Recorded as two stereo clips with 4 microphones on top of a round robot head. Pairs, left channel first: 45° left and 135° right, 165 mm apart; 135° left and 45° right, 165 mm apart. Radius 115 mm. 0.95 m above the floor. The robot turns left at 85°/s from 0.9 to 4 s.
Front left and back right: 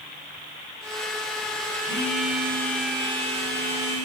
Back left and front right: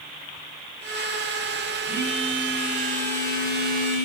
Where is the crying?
No crying in this recording.